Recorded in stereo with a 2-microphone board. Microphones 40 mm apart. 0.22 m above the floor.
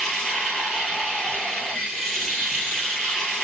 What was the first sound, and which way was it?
Running water, 5° left (ahead or behind).